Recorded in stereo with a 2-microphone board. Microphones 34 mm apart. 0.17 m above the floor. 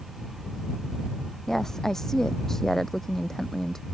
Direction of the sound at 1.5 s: 10° left (ahead or behind).